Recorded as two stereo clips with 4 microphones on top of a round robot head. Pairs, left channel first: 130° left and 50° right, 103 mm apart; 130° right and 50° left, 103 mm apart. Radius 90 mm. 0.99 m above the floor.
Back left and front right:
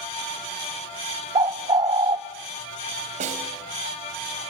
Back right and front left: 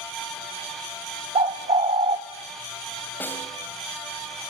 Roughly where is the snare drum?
Ahead right.